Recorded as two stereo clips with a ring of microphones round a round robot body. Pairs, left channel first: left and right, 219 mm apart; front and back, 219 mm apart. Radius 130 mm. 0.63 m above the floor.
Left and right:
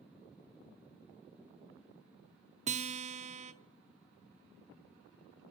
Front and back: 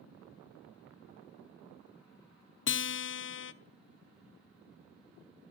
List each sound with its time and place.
2.7 s a guitar: 30° right, 0.7 m